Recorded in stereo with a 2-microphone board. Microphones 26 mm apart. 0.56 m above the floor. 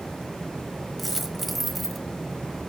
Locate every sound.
1.0 s a dropped coin: centre (ahead or behind), 1.1 m